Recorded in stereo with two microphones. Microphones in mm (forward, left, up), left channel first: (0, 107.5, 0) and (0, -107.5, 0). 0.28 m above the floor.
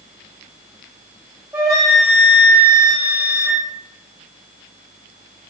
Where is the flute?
10° right (ahead or behind), 0.9 m.